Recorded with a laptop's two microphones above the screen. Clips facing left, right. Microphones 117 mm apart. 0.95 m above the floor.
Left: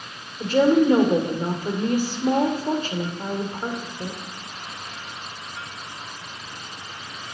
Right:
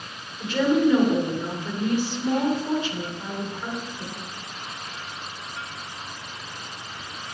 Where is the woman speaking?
40° left (ahead or behind), 3 m.